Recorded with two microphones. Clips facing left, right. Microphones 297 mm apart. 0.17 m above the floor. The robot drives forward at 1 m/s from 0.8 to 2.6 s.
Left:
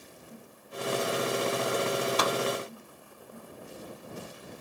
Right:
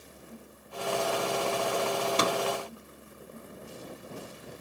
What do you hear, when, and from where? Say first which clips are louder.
2.2 s a microwave: right 1 dB; 30° right (ahead or behind)